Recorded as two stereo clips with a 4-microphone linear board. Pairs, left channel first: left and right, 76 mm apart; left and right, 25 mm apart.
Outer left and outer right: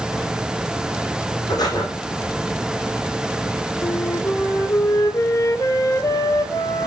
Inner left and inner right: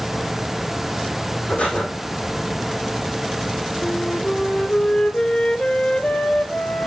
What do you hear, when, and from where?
1.5 s breathing: 65° left (ahead or behind), 3.5 m
3.8 s a flute: 50° left (ahead or behind), 0.7 m